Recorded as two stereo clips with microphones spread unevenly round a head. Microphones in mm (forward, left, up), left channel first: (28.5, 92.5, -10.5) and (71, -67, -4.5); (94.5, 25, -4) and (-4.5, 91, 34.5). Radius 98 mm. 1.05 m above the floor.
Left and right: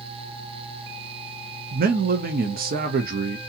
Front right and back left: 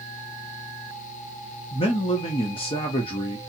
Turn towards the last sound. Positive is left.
turn(degrees=-50)